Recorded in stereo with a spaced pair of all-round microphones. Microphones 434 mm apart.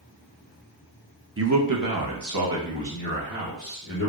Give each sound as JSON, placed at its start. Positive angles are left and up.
{"t": 1.4, "sound": "a man speaking", "side_deg": -30, "distance_m": 0.6}